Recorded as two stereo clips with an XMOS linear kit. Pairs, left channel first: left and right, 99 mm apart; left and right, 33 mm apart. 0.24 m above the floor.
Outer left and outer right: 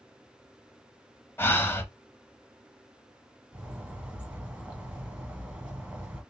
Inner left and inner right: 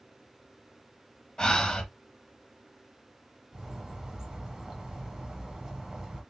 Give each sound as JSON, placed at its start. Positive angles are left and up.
{"t": 1.4, "sound": "breathing", "side_deg": 25, "distance_m": 0.7}
{"t": 3.5, "sound": "a bird", "side_deg": -15, "distance_m": 1.2}